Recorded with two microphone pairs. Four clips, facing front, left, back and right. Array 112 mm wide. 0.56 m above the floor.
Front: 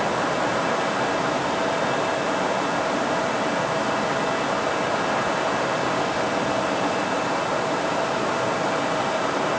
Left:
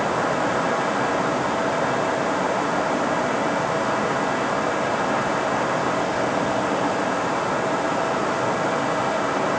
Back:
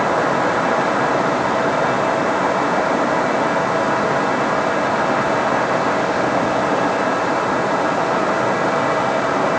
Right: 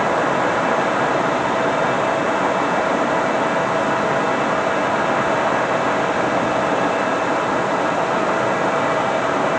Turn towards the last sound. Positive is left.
No sound to turn to.